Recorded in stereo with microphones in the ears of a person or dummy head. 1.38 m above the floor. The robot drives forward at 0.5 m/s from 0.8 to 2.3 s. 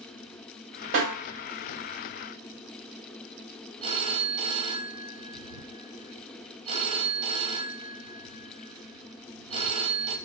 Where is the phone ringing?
30° right (ahead or behind), 0.6 m.